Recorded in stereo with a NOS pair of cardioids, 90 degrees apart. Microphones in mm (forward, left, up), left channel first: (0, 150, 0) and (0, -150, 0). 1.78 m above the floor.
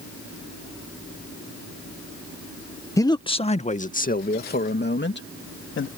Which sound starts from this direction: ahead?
A man speaking, at 3.0 s.